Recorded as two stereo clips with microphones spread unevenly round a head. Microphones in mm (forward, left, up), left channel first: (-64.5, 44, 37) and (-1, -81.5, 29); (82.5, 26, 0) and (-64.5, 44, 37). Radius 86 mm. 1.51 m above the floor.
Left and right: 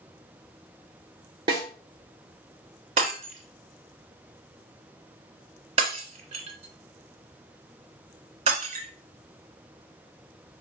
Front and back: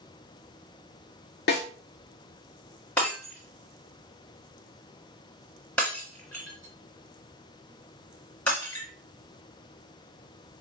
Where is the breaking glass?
100° right, 1.4 m.